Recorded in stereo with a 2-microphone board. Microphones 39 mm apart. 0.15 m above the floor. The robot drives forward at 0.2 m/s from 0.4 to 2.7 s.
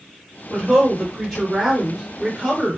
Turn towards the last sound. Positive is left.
turn(degrees=-5)  # may be behind; listen again after turning